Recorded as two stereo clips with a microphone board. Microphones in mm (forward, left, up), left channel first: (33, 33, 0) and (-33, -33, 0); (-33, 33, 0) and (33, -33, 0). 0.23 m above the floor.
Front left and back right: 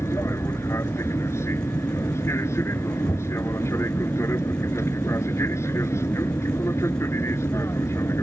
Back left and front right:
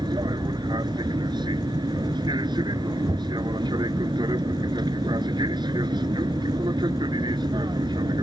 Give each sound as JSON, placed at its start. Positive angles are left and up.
{"t": 0.0, "sound": "an aircraft", "azimuth_deg": -15}